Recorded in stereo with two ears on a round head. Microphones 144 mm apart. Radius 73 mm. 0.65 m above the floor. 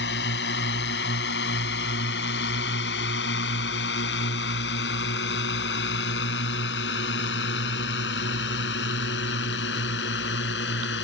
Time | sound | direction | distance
0.0 | a drone | 75° left (ahead or behind) | ?